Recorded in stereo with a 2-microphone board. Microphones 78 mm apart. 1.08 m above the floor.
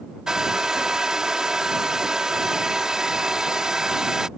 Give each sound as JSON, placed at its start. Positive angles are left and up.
{"t": 0.3, "sound": "a hair dryer", "side_deg": -10}